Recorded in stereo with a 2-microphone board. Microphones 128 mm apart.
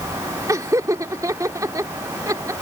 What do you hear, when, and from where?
0.5 s laughter: 25° right (ahead or behind)